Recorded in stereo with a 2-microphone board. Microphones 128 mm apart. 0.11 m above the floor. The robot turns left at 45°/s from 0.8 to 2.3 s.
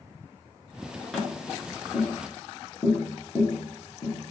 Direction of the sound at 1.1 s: Centre (ahead or behind).